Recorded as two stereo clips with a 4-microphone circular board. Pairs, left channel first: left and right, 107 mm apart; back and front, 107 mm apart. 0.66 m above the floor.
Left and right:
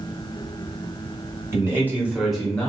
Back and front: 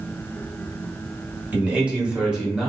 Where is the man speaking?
65° right, 1.2 m; by 2.7 s 70° left, 1.1 m.